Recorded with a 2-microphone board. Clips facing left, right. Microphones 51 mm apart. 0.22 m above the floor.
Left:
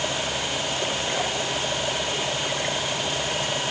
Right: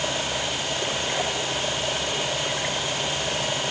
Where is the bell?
I don't hear a bell.